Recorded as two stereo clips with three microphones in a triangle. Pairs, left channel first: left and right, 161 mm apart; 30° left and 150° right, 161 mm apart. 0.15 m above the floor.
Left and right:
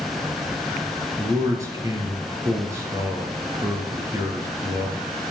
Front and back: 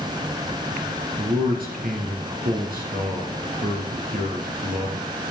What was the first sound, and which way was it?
A man speaking, 160° right.